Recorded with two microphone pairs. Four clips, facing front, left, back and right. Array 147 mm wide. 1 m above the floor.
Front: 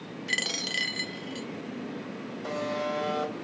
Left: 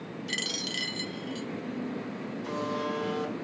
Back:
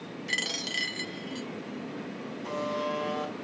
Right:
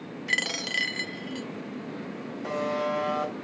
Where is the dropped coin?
70° right, 0.7 m.